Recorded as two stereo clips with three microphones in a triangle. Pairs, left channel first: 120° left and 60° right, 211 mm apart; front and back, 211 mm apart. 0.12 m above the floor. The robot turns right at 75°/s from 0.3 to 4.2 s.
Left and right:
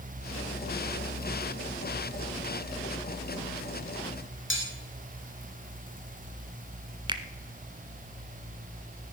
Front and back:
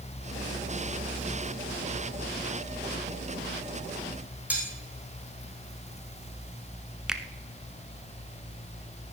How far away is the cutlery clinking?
About 3 m.